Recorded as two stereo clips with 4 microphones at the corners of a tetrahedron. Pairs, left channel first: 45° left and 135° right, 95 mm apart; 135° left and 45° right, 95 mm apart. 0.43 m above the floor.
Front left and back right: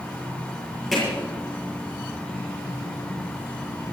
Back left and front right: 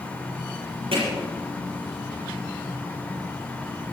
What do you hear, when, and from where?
0.9 s hammering: 45° right, 7 m